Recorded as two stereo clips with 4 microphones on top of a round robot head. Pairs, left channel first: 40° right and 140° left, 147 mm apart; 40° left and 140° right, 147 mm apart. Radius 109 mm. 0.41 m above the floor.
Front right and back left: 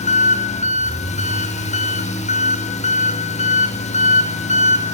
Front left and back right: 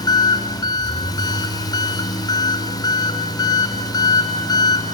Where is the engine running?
15° right, 1.2 m.